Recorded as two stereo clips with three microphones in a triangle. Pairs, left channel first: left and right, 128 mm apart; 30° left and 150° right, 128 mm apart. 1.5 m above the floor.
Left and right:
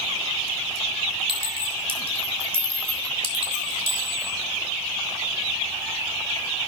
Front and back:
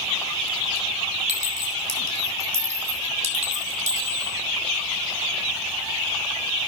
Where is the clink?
135° right, 3.5 m.